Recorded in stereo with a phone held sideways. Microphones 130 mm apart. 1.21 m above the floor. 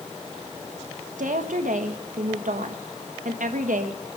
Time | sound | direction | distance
1.2 | a woman speaking | 80° right | 1.5 m